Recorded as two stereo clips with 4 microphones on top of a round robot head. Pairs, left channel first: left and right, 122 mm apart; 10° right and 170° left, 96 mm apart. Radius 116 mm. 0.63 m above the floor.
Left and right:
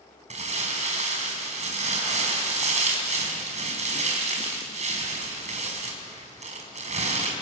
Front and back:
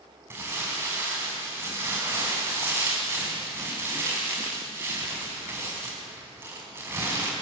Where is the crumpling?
120° right, 5 m.